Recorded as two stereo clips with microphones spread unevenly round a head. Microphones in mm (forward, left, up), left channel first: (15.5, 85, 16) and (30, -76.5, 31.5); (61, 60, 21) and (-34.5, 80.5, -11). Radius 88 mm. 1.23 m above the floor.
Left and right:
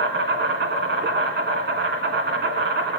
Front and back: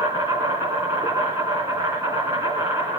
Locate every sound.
0.0 s an insect: 110° right, 2.5 m